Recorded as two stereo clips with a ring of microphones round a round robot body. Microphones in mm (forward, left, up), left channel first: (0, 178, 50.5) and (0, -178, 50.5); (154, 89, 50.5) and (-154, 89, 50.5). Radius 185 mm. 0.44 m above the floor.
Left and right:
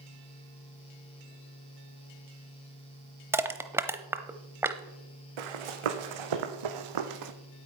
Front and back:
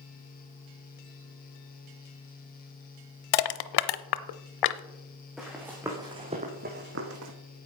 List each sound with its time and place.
3.3 s crushing: 5° right, 0.7 m
5.4 s running footsteps: 90° right, 2 m; by 7.3 s 130° right, 1.3 m